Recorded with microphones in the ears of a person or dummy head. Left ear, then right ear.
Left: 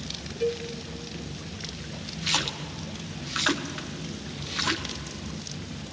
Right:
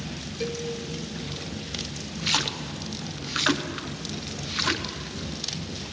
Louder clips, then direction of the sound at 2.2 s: Right 2 dB; centre (ahead or behind).